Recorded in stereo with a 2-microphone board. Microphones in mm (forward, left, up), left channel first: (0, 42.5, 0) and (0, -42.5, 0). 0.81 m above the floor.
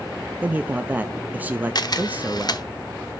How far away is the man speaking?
About 0.6 m.